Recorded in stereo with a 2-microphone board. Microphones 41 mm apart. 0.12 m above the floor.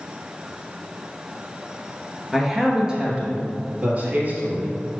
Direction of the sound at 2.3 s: Centre (ahead or behind).